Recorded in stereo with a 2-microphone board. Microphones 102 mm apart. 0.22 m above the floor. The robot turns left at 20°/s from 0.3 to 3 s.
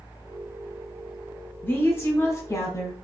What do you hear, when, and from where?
1.6 s a woman speaking: 25° left (ahead or behind), 1.3 m; by 2.9 s 35° left (ahead or behind), 1.3 m